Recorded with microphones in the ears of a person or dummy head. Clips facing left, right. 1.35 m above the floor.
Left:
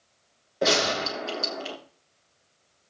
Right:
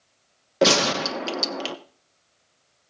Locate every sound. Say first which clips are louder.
0.6 s a gunshot: right 4 dB; 80° right, 1.2 m